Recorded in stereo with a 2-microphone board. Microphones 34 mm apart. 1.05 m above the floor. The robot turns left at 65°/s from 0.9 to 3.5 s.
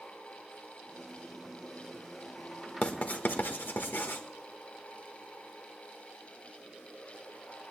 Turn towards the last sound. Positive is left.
turn(degrees=70)  # may be behind; listen again after turning